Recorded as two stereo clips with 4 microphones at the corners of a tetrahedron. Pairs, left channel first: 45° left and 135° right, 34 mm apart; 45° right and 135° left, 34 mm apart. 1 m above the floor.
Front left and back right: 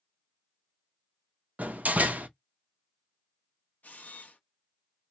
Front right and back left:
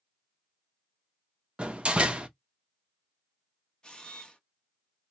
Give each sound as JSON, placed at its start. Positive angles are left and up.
{"t": 1.6, "sound": "a door slam", "azimuth_deg": -170, "distance_m": 0.5}
{"t": 3.8, "sound": "a camera shutter", "azimuth_deg": 15, "distance_m": 0.7}